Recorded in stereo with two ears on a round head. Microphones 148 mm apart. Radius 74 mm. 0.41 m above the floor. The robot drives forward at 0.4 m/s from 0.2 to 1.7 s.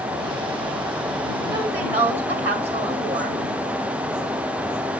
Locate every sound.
1.5 s a woman speaking: 15° right (ahead or behind), 1.7 m; by 3.4 s 10° right (ahead or behind), 1.7 m